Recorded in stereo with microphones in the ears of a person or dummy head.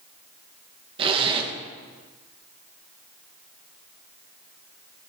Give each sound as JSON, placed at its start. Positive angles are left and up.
{"t": 1.0, "sound": "a zipper", "side_deg": -30, "distance_m": 1.3}